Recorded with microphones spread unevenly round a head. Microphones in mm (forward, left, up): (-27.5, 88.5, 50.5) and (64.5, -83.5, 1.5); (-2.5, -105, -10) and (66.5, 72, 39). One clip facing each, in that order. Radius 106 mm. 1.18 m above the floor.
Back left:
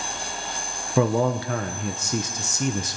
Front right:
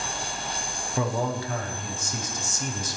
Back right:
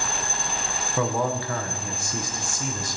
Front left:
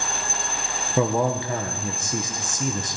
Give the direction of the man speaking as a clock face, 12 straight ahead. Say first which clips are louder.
Back left 7 dB, front left 4 dB; 7 o'clock.